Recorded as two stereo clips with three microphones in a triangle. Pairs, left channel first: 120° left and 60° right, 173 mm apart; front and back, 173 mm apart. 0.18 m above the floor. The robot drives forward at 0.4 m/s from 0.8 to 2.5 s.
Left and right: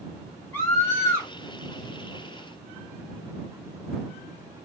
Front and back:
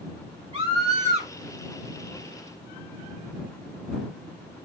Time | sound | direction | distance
0.5 | a scream | 170° right | 1.9 m